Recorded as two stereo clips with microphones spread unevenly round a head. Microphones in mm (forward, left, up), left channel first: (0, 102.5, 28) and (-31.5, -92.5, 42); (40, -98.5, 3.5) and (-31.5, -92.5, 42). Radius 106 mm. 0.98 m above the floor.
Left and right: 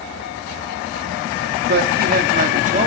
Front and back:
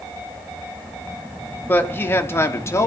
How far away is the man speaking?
About 3 m.